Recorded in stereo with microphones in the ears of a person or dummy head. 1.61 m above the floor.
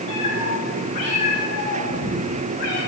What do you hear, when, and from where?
0.1 s a cat meowing: 40° left (ahead or behind), 9.5 m; by 2.8 s 60° left (ahead or behind), 11.5 m